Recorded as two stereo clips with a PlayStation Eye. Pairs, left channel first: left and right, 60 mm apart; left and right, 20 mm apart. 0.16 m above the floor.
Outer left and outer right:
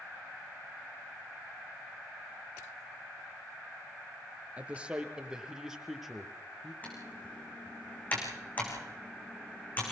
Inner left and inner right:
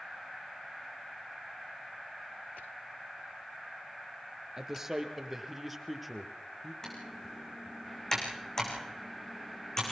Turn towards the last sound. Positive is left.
turn(degrees=30)  # may be behind; listen again after turning